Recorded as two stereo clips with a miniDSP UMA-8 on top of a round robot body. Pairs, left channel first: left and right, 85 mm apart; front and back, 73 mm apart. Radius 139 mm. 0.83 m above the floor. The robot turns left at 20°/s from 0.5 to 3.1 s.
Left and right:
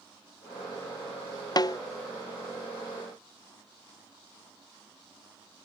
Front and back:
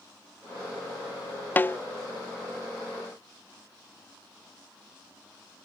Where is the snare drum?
60° left; by 1.8 s 55° left.